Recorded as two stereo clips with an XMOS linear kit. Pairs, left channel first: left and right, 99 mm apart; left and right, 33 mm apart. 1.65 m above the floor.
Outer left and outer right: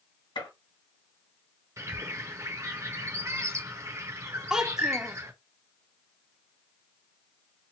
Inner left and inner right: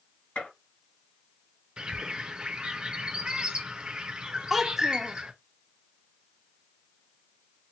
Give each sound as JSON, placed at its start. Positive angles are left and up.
{"t": 0.3, "sound": "a gunshot", "side_deg": 60, "distance_m": 2.0}
{"t": 1.8, "sound": "a bird", "side_deg": -30, "distance_m": 0.9}
{"t": 4.5, "sound": "a child speaking", "side_deg": -5, "distance_m": 0.6}